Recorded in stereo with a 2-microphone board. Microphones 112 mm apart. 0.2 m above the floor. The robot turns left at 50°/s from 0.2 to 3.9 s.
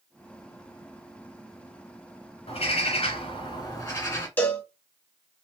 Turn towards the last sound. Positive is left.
turn(degrees=15)  # may be behind; listen again after turning